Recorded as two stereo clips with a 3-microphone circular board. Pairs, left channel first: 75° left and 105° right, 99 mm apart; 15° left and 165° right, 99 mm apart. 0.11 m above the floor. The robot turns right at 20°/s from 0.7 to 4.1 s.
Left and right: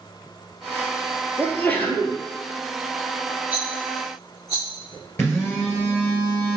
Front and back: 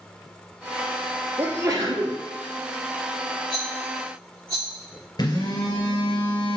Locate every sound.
1.4 s a sneeze: 135° left, 1.7 m; by 2.2 s 155° left, 1.7 m
3.5 s a rattle: 170° right, 2 m; by 4.7 s 160° right, 2 m
5.2 s a phone buzzing: 20° left, 2 m